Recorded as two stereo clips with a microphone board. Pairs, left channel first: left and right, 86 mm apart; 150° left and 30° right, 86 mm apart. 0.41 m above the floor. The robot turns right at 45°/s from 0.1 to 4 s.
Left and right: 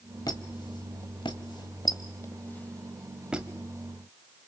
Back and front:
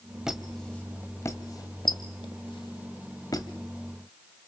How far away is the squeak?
About 1.4 m.